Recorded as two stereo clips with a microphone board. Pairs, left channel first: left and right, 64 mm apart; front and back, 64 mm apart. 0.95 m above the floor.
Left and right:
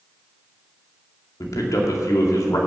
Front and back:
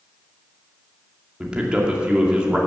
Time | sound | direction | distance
1.4 | a man speaking | 105° left | 2 m